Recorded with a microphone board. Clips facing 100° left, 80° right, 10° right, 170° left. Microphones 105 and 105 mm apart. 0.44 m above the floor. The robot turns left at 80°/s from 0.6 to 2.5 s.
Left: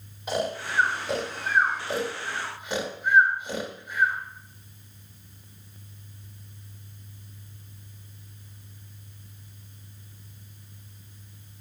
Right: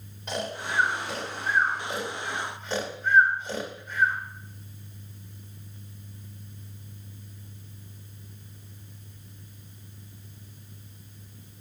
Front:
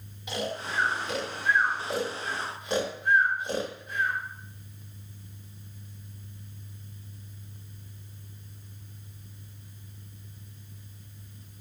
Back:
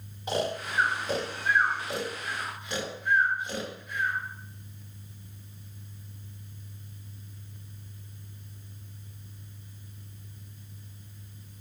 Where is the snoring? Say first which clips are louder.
Left 3 dB, back 3 dB; straight behind, 1.5 m; by 4.2 s 30° left, 1.5 m.